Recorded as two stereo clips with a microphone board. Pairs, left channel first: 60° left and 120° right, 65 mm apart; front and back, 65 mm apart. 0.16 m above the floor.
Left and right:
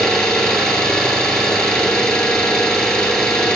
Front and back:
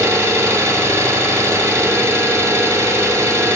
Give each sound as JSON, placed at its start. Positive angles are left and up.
{"t": 0.0, "sound": "an engine running", "azimuth_deg": 145, "distance_m": 0.8}